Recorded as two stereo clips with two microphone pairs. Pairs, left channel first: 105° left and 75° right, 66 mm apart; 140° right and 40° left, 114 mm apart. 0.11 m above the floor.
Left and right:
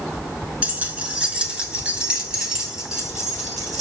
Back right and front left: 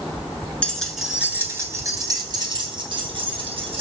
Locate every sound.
0.6 s keys jangling: 85° right, 0.8 m; by 3.8 s 10° left, 2 m